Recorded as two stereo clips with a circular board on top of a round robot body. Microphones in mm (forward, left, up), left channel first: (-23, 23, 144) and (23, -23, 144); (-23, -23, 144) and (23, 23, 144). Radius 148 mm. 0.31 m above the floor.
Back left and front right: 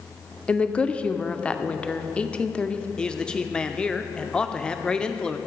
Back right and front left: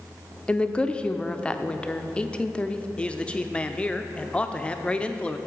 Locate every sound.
0.5 s a woman speaking: straight behind, 0.9 m
3.0 s a man speaking: 175° right, 0.9 m